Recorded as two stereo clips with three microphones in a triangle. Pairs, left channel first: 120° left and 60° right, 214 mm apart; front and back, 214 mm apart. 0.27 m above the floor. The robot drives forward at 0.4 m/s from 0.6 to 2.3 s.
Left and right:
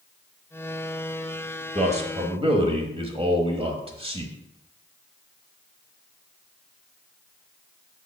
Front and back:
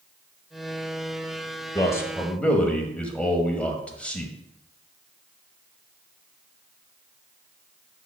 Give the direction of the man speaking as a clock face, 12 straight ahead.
2 o'clock.